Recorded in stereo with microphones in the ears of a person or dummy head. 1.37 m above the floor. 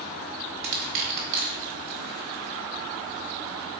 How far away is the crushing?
About 1.4 m.